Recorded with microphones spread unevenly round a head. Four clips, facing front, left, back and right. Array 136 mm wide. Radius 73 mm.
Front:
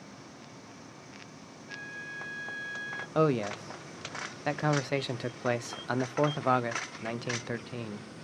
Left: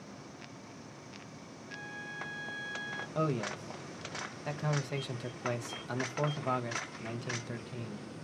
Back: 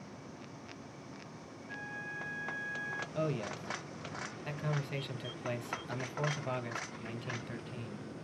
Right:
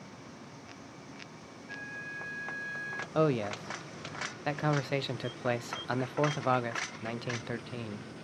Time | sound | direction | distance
1.7 | a flute | 65° right | 2 m
3.1 | a man speaking | 25° right | 0.6 m